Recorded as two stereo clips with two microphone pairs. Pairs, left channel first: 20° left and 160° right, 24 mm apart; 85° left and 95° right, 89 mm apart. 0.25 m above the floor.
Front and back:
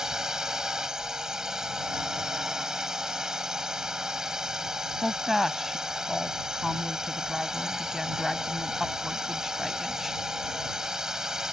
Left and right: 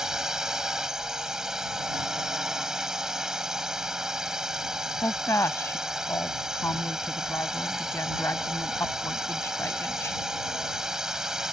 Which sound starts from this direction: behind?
A drone, at 0.0 s.